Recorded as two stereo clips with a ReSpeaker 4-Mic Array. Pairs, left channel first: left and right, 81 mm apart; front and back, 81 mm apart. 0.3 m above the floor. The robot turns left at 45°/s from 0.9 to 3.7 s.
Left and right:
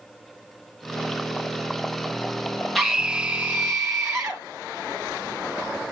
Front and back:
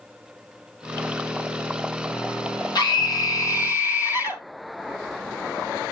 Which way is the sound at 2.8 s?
5° left.